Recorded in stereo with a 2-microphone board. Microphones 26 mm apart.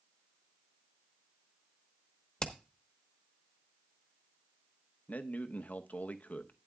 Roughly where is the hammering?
Left.